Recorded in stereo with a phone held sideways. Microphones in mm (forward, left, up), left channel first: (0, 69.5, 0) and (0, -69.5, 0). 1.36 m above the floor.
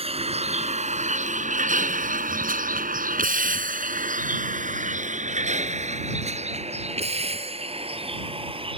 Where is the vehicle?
45° right (ahead or behind); by 8.8 s 40° right (ahead or behind).